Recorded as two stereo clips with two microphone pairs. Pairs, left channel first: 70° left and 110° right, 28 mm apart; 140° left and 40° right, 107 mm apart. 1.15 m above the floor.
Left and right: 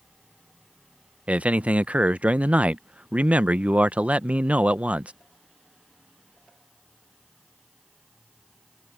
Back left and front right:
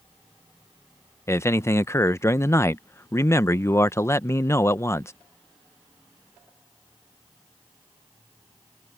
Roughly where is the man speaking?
Behind right.